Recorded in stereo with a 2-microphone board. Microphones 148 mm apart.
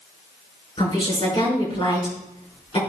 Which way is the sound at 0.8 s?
40° left (ahead or behind).